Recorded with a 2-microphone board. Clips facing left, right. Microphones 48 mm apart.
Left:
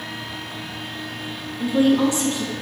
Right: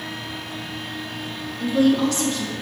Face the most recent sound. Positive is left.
turn(degrees=25)  # may be behind; listen again after turning